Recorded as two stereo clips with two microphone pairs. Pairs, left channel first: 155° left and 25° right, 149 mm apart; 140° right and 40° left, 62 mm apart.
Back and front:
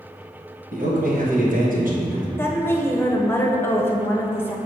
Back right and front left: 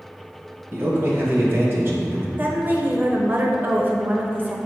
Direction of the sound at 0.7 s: 15° right.